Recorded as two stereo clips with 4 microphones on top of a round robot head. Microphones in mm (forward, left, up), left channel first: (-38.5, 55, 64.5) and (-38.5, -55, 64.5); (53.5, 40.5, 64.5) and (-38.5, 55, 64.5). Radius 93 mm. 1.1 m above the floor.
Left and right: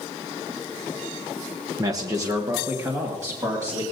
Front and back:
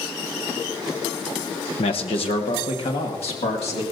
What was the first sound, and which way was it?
A man speaking, 30° right.